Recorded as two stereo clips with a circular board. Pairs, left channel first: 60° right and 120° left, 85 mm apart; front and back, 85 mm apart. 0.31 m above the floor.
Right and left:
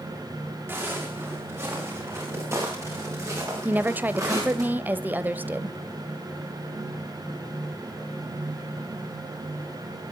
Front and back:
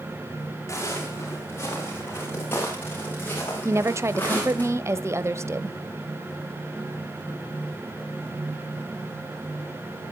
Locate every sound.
0.7 s footsteps: 55° left, 9.5 m; by 4.7 s 70° left, 11.5 m
3.6 s a woman speaking: 170° left, 1.0 m